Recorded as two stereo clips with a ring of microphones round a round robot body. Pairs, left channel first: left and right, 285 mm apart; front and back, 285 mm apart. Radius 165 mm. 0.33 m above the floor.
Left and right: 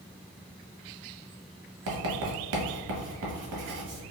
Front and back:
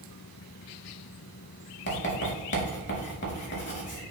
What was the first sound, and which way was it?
Writing, 50° right.